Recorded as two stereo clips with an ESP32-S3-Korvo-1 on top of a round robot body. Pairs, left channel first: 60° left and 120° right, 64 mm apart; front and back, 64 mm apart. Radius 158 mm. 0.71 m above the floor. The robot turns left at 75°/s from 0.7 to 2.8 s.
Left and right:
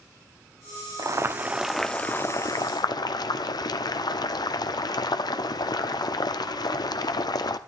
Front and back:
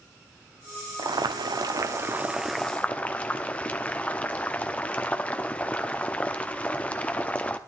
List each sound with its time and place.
1.0 s boiling: 155° right, 0.8 m; by 7.6 s 70° left, 0.8 m